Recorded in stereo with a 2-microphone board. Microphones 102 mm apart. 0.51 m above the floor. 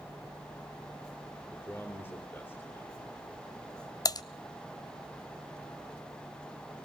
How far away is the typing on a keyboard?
About 0.6 m.